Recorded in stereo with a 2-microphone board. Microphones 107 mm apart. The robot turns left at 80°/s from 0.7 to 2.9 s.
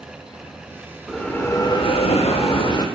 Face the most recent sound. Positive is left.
turn(degrees=35)